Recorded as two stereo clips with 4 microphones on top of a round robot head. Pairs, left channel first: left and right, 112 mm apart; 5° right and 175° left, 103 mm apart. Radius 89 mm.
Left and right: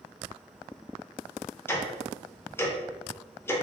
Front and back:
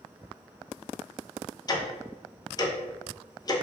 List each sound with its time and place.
1.7 s ticking: 25° left, 0.6 m